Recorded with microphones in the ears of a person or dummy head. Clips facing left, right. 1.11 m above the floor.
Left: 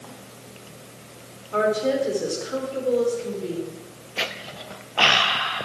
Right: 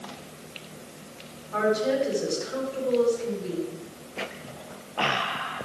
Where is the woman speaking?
40° left (ahead or behind), 3.5 m.